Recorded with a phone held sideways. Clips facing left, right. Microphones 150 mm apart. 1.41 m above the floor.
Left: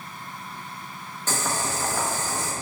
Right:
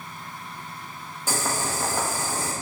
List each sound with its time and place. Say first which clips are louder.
1.3 s boiling: even; 10° right (ahead or behind), 1.2 m